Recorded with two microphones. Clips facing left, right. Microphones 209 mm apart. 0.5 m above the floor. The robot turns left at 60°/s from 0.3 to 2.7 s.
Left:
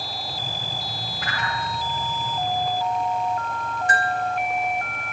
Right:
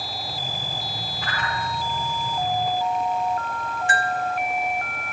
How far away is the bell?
About 1.6 m.